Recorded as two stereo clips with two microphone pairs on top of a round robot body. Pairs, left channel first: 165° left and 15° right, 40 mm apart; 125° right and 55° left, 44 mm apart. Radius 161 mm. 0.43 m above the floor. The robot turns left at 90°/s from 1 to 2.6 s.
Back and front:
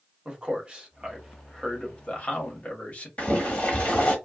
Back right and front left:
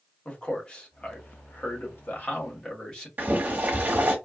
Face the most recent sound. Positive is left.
turn(degrees=105)